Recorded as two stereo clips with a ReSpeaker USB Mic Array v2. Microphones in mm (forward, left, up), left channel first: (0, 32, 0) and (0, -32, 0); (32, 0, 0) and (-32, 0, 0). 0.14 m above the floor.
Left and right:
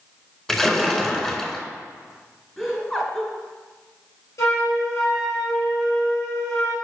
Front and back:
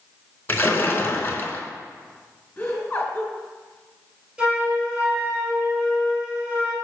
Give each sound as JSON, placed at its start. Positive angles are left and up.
{"t": 0.5, "sound": "a splash", "azimuth_deg": 15, "distance_m": 0.9}
{"t": 2.6, "sound": "laughter", "azimuth_deg": 25, "distance_m": 1.4}
{"t": 4.4, "sound": "a flute", "azimuth_deg": 110, "distance_m": 3.0}